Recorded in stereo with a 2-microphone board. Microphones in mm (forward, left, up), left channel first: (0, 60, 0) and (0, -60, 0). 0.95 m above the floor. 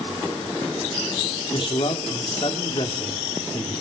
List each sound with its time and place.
1.5 s a man speaking: 50° left (ahead or behind), 2.5 m